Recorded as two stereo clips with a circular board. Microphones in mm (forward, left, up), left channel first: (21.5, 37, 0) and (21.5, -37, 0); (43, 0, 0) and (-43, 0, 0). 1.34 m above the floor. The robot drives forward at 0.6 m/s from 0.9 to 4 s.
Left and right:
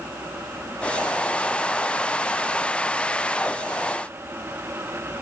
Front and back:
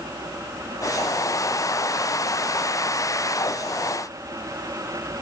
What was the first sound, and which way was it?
Only background noise.